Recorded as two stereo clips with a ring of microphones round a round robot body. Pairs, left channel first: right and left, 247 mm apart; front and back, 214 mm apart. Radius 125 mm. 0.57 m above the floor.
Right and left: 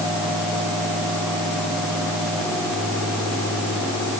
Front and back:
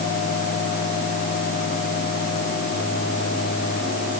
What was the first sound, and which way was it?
Only background noise.